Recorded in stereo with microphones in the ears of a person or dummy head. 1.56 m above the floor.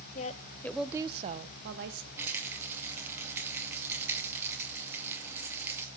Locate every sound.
0.1 s a woman speaking: 40° left (ahead or behind), 1.1 m; by 2.1 s 70° right (ahead or behind), 1.8 m
2.2 s a rattle: 15° right (ahead or behind), 2 m